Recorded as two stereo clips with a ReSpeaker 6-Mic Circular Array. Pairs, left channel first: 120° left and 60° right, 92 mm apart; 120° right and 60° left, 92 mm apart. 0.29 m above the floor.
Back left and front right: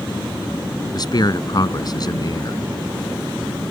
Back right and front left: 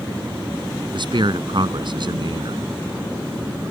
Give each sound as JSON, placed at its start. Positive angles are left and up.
{"t": 0.9, "sound": "a man speaking", "azimuth_deg": 85}